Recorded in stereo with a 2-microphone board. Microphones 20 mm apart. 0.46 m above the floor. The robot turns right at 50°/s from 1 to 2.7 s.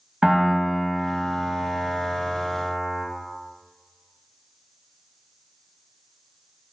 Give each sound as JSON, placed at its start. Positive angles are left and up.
{"t": 0.2, "sound": "a piano", "azimuth_deg": -140, "distance_m": 0.6}